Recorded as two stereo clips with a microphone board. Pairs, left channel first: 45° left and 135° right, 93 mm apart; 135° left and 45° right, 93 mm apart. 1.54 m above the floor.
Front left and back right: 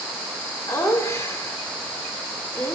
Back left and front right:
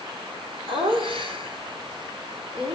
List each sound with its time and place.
0.7 s laughter: 20° right, 4 m